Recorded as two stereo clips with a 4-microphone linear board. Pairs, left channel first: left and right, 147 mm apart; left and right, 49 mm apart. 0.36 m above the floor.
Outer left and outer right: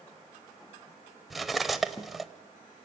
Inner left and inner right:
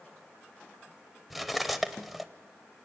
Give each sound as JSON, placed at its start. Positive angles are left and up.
{"t": 1.3, "sound": "cutlery clinking", "side_deg": 0, "distance_m": 0.8}